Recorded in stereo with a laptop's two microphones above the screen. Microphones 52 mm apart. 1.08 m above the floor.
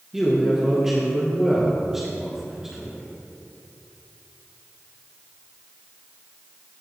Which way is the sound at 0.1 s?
10° right (ahead or behind).